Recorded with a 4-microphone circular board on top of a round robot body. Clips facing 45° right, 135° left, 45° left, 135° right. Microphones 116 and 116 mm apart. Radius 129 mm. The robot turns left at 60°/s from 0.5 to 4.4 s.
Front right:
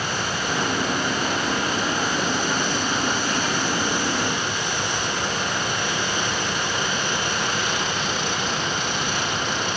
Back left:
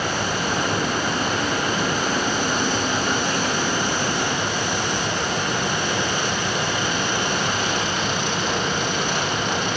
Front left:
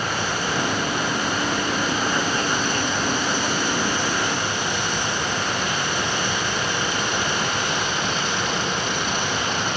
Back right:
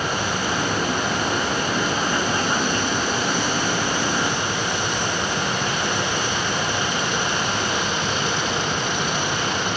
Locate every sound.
Only background noise.